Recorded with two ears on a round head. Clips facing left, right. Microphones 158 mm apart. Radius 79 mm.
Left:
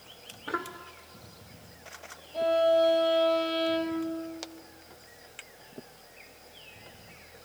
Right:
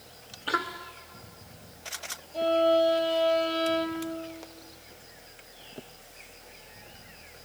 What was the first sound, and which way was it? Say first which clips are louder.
A violin: even; centre (ahead or behind).